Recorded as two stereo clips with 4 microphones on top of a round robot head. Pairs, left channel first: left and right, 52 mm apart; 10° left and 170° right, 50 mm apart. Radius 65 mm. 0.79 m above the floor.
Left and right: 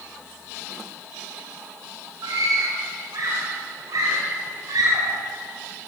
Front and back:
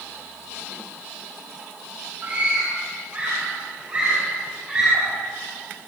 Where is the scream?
110° right, 5 m; by 5.2 s 95° right, 6.5 m.